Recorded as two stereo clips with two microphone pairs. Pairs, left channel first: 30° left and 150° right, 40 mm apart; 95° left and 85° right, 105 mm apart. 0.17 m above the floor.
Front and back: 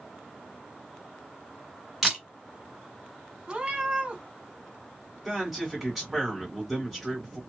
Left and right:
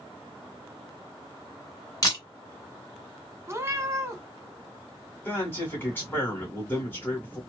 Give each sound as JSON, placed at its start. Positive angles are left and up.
{"t": 2.0, "sound": "a camera shutter", "azimuth_deg": 135, "distance_m": 1.6}
{"t": 3.5, "sound": "a cat meowing", "azimuth_deg": -115, "distance_m": 0.7}
{"t": 5.2, "sound": "a man speaking", "azimuth_deg": 135, "distance_m": 1.7}